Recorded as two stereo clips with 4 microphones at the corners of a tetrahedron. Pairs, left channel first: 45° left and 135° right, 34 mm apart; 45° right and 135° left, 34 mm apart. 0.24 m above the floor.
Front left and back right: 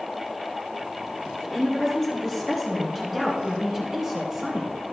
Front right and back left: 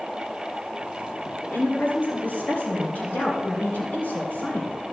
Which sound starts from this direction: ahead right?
A woman speaking, at 1.4 s.